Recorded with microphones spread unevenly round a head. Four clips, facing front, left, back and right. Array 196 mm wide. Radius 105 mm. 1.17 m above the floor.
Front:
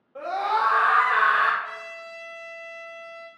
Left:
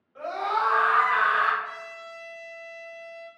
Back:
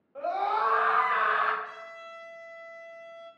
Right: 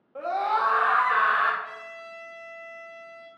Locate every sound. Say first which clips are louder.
0.1 s a scream: right 2 dB, front 3 dB; 60° right, 0.9 m
1.6 s a trumpet: left 1 dB, front 4 dB; 125° right, 0.7 m